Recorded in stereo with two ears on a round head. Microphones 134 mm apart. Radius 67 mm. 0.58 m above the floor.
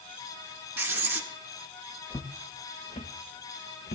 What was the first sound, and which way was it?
Writing, 15° right (ahead or behind).